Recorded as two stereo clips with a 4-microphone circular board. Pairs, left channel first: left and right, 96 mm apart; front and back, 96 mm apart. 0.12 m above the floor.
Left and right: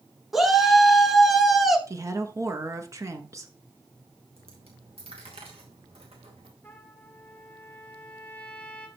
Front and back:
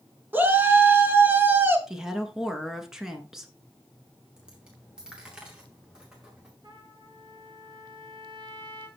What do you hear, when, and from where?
0.3 s a shout: 175° right, 1.1 m
1.9 s a woman speaking: 100° right, 1.2 m
4.4 s a dropped coin: 100° right, 2.5 m
6.6 s a trumpet: 160° left, 1.5 m